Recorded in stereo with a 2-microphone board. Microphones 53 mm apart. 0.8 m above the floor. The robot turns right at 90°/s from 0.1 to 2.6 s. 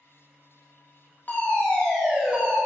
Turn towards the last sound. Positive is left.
turn(degrees=-125)